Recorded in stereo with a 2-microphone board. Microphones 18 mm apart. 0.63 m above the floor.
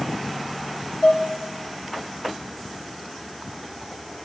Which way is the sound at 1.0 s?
70° left (ahead or behind).